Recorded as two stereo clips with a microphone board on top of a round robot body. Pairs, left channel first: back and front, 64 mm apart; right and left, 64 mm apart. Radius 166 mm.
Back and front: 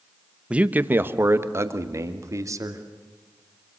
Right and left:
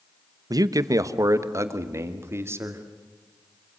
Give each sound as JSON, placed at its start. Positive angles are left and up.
{"t": 0.5, "sound": "a man speaking", "azimuth_deg": 75, "distance_m": 1.0}